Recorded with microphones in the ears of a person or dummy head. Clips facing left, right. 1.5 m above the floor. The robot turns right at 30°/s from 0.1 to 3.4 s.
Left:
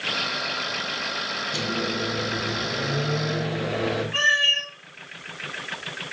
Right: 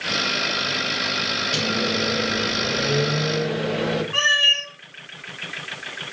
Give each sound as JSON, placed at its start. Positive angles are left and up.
{"t": 1.5, "sound": "a microwave", "azimuth_deg": -90, "distance_m": 2.0}
{"t": 4.1, "sound": "a cat meowing", "side_deg": -50, "distance_m": 1.3}